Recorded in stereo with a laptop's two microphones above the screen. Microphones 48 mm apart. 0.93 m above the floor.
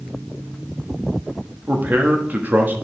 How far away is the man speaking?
About 1.3 m.